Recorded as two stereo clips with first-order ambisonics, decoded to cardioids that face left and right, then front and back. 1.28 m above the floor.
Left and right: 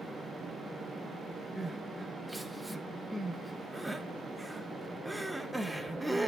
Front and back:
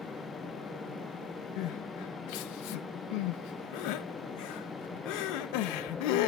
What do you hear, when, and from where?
1.6 s crying: 5° right, 0.7 m